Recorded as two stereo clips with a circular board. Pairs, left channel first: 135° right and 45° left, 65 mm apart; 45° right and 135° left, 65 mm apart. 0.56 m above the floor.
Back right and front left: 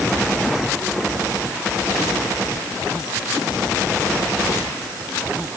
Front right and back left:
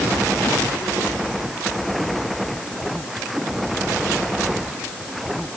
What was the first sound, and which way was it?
Only background noise.